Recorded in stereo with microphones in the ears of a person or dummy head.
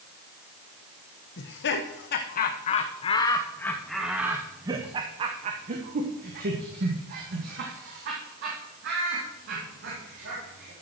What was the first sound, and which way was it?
Laughter, 60° left (ahead or behind).